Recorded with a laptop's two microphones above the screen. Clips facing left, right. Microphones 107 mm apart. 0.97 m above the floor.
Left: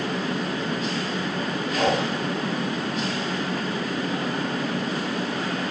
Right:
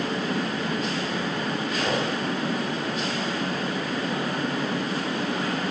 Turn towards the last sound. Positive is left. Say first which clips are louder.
# left 5 dB
turn(degrees=65)  # may be behind; listen again after turning